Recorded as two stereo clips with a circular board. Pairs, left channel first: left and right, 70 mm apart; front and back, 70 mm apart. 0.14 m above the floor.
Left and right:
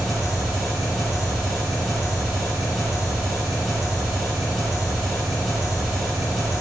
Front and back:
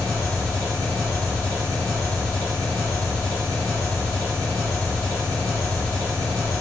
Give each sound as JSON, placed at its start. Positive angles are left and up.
{"t": 0.0, "sound": "an engine running", "azimuth_deg": 0, "distance_m": 1.3}